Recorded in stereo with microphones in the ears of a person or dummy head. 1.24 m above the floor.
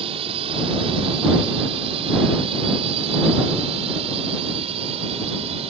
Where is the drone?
30° right (ahead or behind).